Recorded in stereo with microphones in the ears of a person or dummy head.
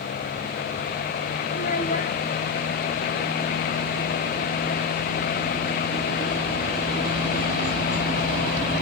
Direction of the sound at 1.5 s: 40° left (ahead or behind).